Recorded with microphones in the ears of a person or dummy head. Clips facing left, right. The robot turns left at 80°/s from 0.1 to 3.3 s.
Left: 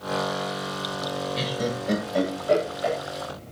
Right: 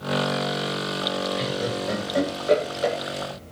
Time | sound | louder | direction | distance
1.4 | laughter | right 1 dB | 50° left (ahead or behind) | 6 m